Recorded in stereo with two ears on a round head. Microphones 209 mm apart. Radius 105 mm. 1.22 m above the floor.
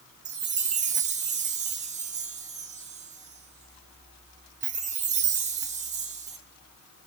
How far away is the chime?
About 0.6 m.